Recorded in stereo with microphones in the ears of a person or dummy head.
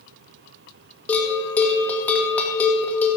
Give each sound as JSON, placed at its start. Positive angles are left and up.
{"t": 1.1, "sound": "a bell", "side_deg": 15, "distance_m": 1.9}